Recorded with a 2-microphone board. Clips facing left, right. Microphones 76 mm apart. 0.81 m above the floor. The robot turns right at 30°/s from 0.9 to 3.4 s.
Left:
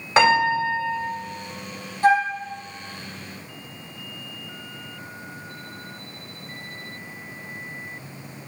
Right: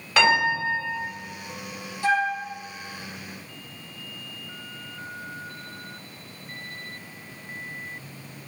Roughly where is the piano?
Left.